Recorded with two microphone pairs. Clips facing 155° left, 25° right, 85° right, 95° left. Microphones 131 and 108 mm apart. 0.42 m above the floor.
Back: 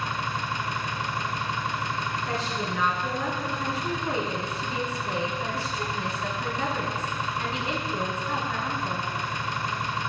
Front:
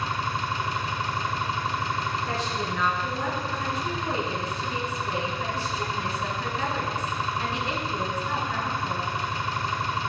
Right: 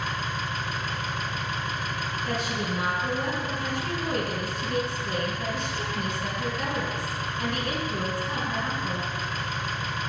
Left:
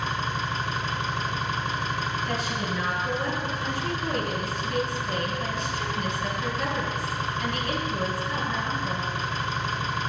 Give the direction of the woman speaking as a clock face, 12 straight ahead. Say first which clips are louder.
Front 1 dB, even; 4 o'clock.